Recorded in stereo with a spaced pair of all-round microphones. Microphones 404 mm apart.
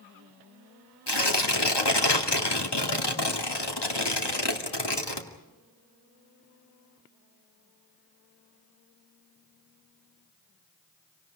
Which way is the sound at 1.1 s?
80° left.